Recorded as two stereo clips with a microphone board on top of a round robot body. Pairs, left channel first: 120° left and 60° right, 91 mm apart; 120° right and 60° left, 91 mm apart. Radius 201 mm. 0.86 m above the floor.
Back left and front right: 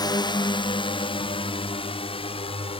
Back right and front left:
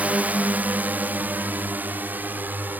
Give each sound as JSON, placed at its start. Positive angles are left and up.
{"t": 0.0, "sound": "a drone", "azimuth_deg": 130}